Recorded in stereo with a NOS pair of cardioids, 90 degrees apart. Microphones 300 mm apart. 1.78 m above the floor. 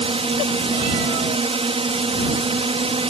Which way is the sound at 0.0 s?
20° right.